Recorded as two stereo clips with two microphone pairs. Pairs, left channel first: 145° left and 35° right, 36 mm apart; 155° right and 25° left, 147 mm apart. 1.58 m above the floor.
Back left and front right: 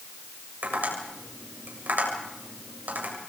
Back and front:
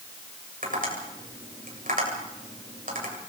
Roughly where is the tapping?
Ahead.